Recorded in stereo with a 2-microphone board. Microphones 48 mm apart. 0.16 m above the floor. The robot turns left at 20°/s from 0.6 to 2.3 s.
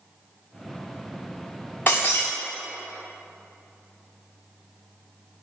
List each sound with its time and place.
1.9 s breaking glass: 40° left (ahead or behind), 2 m; by 2.3 s 45° left (ahead or behind), 2 m